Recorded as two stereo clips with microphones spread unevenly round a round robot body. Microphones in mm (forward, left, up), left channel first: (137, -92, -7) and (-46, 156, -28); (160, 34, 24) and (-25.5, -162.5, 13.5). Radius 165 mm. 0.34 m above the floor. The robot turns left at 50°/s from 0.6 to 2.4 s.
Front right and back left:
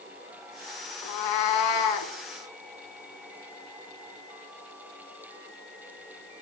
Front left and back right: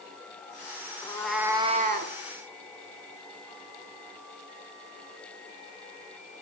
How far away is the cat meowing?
About 0.5 m.